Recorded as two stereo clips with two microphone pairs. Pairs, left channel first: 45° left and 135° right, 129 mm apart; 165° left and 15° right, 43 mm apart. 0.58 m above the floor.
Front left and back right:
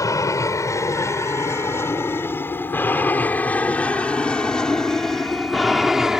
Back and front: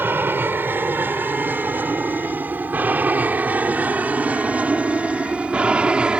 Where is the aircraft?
10° right; by 6.2 s 55° right.